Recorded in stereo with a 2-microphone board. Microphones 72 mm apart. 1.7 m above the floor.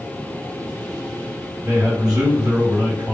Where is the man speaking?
65° right (ahead or behind), 1.5 m.